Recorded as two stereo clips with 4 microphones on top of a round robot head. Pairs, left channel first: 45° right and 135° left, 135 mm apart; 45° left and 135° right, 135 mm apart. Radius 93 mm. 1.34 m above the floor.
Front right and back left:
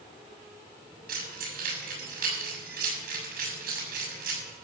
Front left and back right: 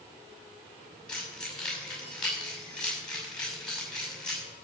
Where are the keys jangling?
130° left, 6.5 m.